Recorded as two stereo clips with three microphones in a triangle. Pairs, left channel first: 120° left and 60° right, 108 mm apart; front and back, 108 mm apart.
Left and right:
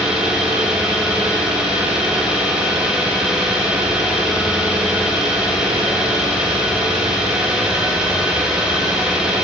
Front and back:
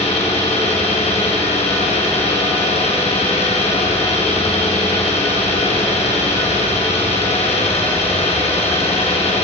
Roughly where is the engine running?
Ahead left.